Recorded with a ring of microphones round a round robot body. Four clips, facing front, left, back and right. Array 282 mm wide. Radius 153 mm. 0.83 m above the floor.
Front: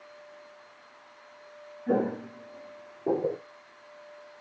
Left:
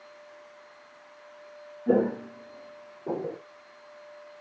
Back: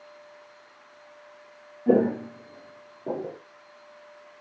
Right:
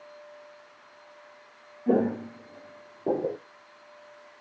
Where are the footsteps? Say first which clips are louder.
Even, back 6 dB; 175° right, 1.2 m; by 3.4 s 50° right, 1.1 m.